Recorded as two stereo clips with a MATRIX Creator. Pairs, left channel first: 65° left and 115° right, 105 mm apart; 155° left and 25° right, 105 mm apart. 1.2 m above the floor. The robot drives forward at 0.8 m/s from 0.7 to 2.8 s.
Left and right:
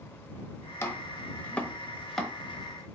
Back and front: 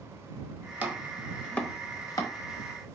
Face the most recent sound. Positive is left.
turn(degrees=165)